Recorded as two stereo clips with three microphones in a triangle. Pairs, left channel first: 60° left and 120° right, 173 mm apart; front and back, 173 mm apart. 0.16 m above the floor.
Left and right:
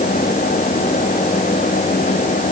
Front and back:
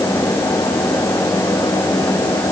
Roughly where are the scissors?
No scissors in this recording.